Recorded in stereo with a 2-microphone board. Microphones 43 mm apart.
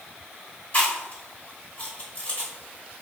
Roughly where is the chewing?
Left.